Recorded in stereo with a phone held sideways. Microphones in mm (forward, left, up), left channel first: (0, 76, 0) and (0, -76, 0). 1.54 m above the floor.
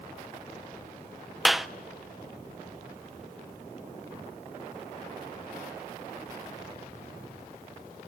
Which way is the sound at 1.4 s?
Centre (ahead or behind).